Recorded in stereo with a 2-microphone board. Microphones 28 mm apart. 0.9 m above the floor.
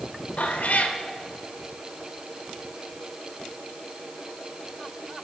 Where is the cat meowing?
65° left (ahead or behind), 1.1 m.